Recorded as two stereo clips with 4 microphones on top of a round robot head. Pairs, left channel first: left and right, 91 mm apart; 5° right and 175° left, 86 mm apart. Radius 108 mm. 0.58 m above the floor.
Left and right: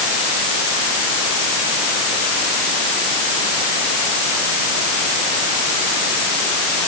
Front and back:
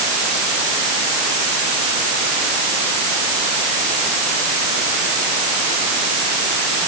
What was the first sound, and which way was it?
Only background noise.